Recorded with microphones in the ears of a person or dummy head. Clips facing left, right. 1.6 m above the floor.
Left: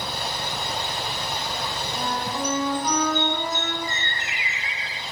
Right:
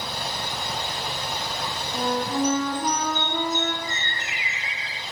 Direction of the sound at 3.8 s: 60° left (ahead or behind).